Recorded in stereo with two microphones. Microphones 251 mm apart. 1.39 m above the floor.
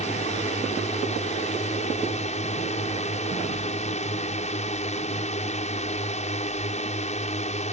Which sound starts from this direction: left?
A drone, at 0.0 s.